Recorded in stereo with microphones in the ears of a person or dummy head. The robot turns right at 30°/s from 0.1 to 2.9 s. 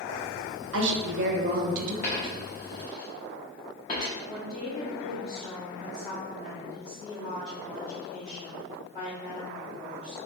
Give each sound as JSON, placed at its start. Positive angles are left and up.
{"t": 0.7, "sound": "a woman speaking", "azimuth_deg": -80, "distance_m": 0.7}
{"t": 2.0, "sound": "a dropped coin", "side_deg": 30, "distance_m": 0.9}
{"t": 4.3, "sound": "a woman speaking", "side_deg": 20, "distance_m": 0.9}